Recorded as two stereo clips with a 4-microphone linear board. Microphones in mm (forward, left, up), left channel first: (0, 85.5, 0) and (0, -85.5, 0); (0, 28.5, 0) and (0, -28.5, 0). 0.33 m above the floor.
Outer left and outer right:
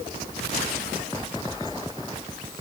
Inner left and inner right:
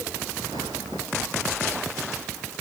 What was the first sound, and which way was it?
Only background noise.